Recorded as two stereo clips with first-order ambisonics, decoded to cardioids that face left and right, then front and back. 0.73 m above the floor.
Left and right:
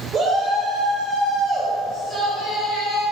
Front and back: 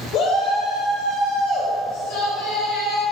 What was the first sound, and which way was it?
A shout, 30° right.